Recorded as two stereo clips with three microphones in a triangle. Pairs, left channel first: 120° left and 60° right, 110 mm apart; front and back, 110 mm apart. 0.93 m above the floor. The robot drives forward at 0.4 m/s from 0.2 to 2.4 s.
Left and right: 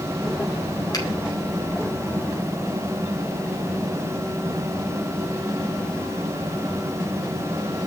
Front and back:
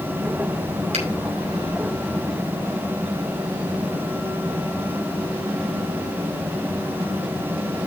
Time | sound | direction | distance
0.9 | a finger snap | 170° left | 4.5 m